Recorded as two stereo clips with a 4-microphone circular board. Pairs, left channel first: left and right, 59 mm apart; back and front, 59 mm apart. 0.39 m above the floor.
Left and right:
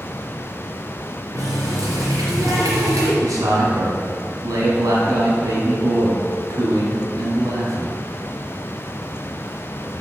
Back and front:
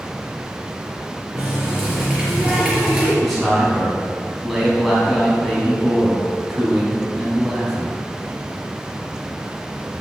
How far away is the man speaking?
About 4 m.